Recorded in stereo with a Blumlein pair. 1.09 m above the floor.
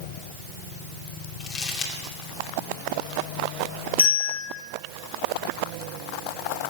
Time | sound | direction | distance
1.4 | crumpling | 30° left | 2 m
4.0 | a bell | 55° left | 3.5 m